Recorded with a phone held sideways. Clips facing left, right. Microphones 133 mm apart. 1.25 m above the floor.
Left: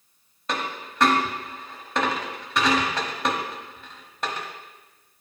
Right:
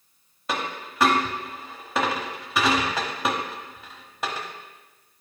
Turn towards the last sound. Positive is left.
turn(degrees=-5)  # may be behind; listen again after turning